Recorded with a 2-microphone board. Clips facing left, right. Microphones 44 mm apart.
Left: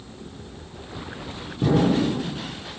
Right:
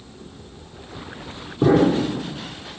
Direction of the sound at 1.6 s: 30° right (ahead or behind).